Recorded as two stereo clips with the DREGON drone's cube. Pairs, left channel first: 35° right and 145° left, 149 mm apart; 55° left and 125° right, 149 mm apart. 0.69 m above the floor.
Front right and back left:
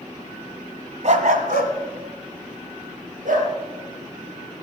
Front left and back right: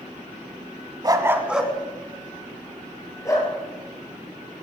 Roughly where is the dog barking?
Behind.